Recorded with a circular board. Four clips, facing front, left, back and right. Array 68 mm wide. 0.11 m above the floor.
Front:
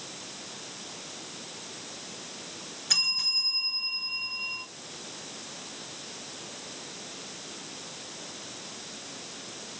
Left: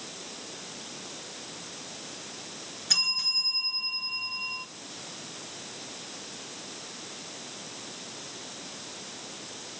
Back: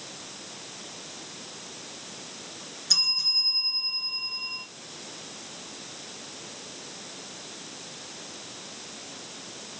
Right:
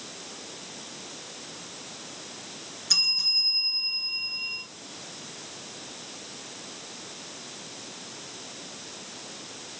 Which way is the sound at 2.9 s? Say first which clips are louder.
Left 1 dB, front 2 dB; 25° left.